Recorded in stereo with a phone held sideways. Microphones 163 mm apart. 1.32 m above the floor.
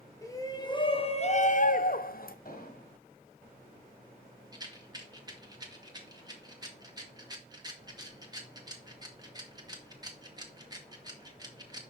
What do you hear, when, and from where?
0.2 s a shout: 20° left (ahead or behind), 1.4 m; by 2.4 s 60° left (ahead or behind), 0.9 m
2.5 s an explosion: 60° left (ahead or behind), 1.9 m
4.5 s a rattle: 25° right (ahead or behind), 1.5 m